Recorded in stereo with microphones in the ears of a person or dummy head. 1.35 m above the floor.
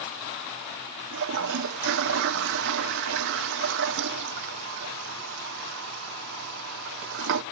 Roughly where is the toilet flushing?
Right.